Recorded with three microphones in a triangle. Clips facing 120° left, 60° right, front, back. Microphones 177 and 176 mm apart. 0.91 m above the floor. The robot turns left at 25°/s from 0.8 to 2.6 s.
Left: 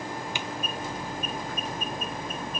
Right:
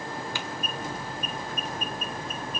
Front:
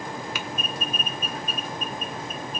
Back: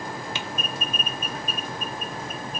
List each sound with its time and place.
0.3 s typing on a keyboard: 165° left, 0.6 m